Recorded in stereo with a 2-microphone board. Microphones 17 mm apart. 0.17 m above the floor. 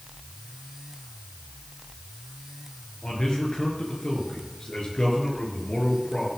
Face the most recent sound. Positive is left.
turn(degrees=50)  # may be behind; listen again after turning